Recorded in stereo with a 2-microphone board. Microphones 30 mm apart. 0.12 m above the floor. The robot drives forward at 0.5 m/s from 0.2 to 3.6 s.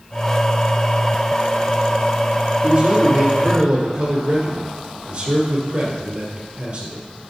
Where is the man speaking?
35° right (ahead or behind), 2 m; by 7.0 s 30° right (ahead or behind), 2.5 m.